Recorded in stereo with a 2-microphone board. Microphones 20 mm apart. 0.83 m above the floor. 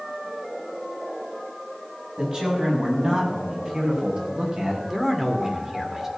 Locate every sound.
2.2 s a man speaking: 35° right (ahead or behind), 6.5 m; by 4.8 s 45° right (ahead or behind), 4.5 m
4.9 s a man speaking: 20° right (ahead or behind), 2 m